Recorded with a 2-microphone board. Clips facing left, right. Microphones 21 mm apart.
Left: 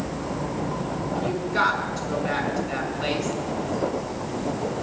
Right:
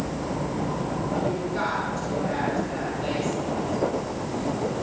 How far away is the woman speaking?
About 6.5 m.